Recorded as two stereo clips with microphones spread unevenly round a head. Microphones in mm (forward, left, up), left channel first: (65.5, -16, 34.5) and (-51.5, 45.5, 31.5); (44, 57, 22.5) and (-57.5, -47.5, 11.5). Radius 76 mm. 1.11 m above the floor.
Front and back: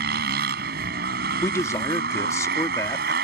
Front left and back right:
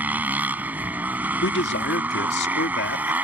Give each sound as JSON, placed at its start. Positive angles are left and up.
{"t": 0.0, "sound": "a motorcycle", "azimuth_deg": 145}
{"t": 1.4, "sound": "a man speaking", "azimuth_deg": 40}